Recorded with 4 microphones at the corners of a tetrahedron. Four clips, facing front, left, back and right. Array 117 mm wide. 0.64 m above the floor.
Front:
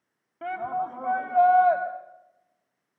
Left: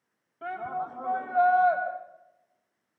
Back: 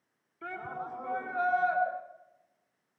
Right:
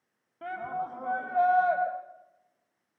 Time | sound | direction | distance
0.4 | a shout | 5° right | 3.5 m